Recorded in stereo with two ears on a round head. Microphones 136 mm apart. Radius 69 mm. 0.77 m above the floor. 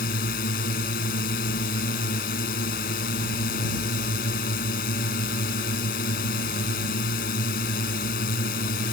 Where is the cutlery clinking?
I don't hear cutlery clinking.